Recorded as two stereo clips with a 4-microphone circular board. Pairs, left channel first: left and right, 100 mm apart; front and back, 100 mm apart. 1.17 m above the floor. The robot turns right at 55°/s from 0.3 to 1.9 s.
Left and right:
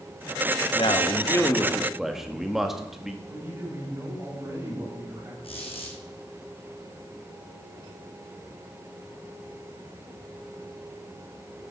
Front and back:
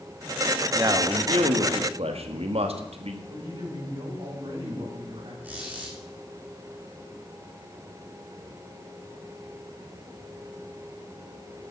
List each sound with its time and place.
0.8 s a man speaking: 120° left, 1.7 m; by 3.2 s 175° right, 1.7 m
3.3 s a man speaking: 155° right, 7 m
5.4 s a squeak: 110° left, 4 m